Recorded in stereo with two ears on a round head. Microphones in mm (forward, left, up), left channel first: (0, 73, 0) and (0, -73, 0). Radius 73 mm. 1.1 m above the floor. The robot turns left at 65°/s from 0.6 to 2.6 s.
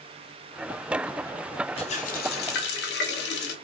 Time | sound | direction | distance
1.8 | a running tap | 145° left | 0.6 m